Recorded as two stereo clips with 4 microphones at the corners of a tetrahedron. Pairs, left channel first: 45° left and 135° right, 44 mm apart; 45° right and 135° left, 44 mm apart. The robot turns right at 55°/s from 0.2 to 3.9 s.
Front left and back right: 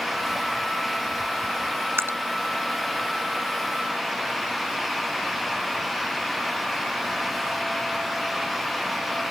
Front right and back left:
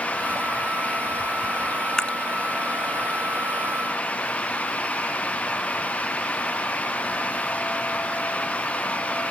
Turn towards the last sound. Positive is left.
turn(degrees=-10)